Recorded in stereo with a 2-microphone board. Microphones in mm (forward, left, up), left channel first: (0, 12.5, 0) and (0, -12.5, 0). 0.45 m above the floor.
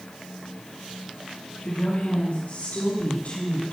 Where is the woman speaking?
75° left (ahead or behind), 5.5 m; by 3.7 s 65° left (ahead or behind), 3.5 m.